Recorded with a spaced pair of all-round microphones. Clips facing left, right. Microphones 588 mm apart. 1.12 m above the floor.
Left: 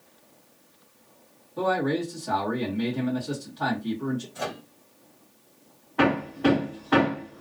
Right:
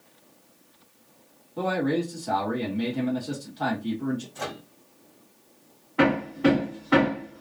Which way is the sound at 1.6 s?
5° right (ahead or behind).